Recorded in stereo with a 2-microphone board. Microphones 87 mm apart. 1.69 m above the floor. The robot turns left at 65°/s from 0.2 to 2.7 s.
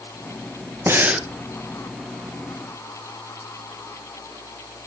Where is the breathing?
30° right (ahead or behind), 1.2 m; by 1.3 s 5° right (ahead or behind), 1.2 m.